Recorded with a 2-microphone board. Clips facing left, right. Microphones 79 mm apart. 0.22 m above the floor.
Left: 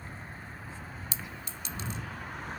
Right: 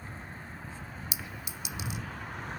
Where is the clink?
15° right (ahead or behind).